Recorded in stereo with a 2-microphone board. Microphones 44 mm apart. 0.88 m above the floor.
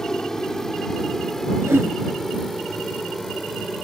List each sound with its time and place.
0.0 s an aircraft: 10° left (ahead or behind); by 3.8 s 5° left (ahead or behind)
1.6 s a whoosh: 80° right